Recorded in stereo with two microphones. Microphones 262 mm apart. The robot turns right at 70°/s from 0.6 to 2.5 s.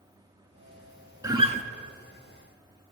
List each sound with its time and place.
1.2 s a guitar: 10° right (ahead or behind), 0.7 m; by 1.6 s 30° right (ahead or behind), 0.7 m